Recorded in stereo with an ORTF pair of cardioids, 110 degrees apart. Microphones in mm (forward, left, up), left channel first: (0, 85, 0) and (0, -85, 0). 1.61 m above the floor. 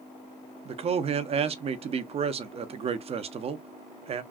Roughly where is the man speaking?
Ahead right.